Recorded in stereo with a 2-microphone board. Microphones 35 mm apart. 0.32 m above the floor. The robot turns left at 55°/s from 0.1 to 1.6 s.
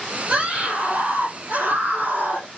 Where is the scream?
30° right, 5 m; by 2.5 s 105° right, 5 m.